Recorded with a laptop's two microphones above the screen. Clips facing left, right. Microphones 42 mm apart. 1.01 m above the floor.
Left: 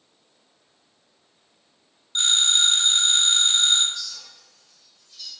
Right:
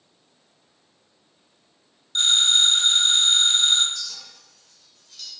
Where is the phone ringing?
20° left (ahead or behind), 1.0 m.